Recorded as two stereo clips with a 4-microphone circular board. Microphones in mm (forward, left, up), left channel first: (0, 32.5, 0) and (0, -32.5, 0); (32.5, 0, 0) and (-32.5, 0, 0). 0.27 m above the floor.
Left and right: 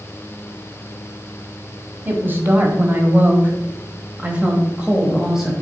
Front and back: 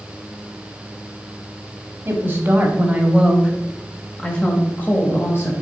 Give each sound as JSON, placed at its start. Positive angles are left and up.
{"t": 2.0, "sound": "a woman speaking", "azimuth_deg": -135, "distance_m": 1.5}